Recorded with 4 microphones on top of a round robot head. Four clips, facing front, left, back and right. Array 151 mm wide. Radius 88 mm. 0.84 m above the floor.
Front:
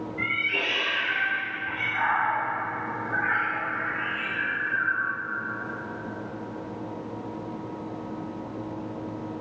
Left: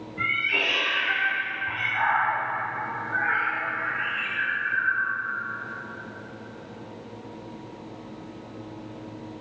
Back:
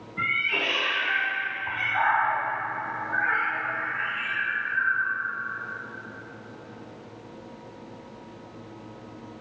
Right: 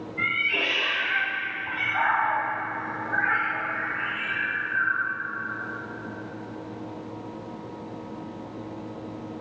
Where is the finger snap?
No finger snap in this recording.